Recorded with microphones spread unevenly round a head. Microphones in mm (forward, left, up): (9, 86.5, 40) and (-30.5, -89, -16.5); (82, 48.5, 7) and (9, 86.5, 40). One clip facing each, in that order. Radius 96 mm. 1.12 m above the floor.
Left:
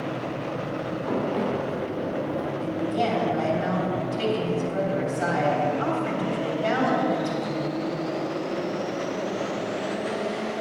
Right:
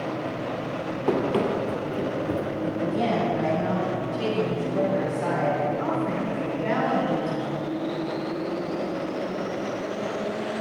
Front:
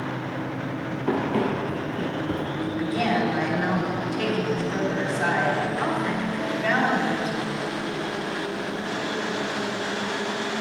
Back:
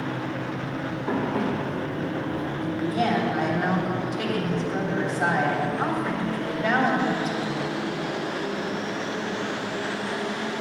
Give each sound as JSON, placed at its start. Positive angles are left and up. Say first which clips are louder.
{"t": 1.1, "sound": "running footsteps", "louder": "right 3 dB, front 2 dB", "azimuth_deg": -75, "distance_m": 1.8}
{"t": 2.6, "sound": "a woman speaking", "louder": "even, back 1 dB", "azimuth_deg": 75, "distance_m": 3.0}